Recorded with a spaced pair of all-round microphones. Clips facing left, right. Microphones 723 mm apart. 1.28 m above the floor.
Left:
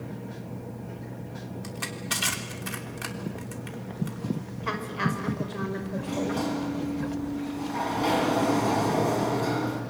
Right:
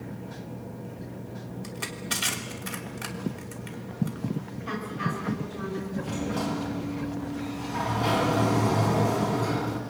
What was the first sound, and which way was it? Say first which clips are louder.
Crushing: even; 5° left (ahead or behind).